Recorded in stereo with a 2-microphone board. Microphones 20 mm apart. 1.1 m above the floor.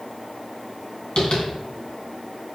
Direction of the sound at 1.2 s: 65° left (ahead or behind).